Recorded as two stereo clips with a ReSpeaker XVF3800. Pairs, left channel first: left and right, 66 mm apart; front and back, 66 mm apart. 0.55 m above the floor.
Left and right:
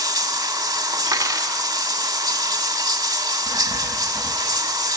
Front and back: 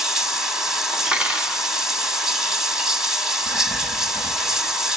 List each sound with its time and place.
0.0 s running water: 95° right, 2 m
1.1 s cutlery clinking: 105° right, 2.5 m
3.5 s writing: 145° right, 1.8 m